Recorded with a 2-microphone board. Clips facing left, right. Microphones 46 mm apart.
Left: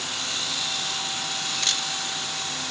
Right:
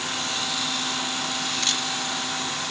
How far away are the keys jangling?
I don't hear keys jangling.